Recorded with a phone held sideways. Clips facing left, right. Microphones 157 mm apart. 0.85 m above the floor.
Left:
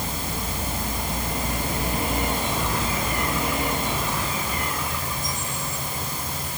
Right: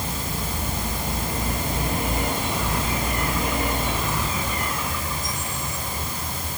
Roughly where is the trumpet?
I don't hear a trumpet.